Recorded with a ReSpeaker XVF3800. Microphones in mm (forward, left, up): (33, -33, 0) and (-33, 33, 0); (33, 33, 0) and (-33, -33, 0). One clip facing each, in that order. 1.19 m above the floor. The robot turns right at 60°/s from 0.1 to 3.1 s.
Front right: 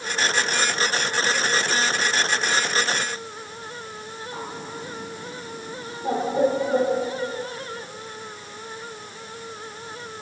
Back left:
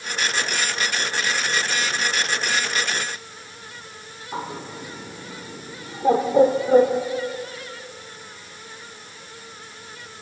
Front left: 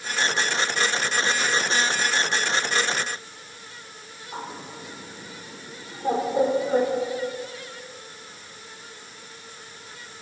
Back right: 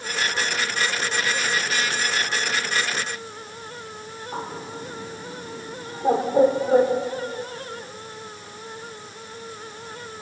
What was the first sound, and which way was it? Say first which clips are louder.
A bird: back left 5 dB, back right 3 dB; 160° left.